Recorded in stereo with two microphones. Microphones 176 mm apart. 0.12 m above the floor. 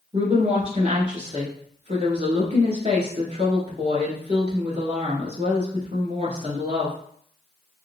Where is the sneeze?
I don't hear a sneeze.